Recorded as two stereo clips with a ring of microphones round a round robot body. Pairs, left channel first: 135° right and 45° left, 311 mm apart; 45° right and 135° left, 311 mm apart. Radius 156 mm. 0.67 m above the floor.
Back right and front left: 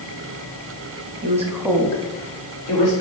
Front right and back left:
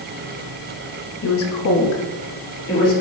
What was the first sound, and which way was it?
A woman speaking, 5° right.